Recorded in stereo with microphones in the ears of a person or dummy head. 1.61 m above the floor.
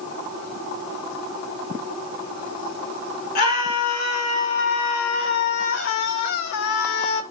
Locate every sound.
3.4 s a scream: 50° left (ahead or behind), 3.5 m; by 7.2 s 60° left (ahead or behind), 1.1 m